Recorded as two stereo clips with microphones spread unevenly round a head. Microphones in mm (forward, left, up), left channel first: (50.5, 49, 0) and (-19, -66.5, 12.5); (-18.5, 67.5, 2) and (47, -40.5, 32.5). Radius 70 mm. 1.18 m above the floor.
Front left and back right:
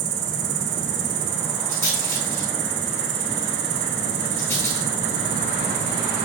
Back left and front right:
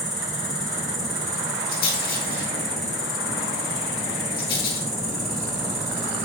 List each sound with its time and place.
0.0 s an insect: 160° right, 1.7 m
1.7 s a rattle: 130° left, 5 m